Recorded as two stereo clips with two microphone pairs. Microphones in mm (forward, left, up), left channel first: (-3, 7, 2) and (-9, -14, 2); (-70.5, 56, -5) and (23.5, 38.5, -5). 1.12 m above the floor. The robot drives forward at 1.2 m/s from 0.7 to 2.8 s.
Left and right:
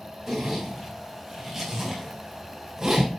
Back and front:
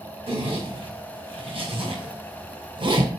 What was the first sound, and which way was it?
A zipper, 15° right.